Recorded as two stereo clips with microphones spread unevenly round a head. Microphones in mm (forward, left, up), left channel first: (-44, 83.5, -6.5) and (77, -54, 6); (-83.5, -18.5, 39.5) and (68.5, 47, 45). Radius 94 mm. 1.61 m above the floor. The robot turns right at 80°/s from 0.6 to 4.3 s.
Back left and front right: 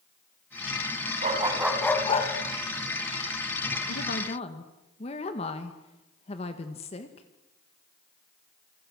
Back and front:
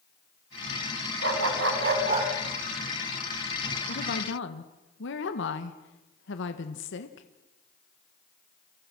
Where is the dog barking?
Straight ahead, 4 m; by 2.3 s 85° left, 4 m.